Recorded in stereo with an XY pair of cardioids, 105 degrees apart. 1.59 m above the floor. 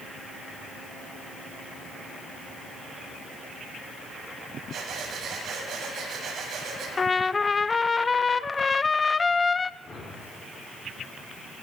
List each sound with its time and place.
4.7 s breathing: 60° right, 7.5 m
7.0 s a trumpet: 30° left, 0.8 m
9.8 s a whoosh: 30° left, 4.5 m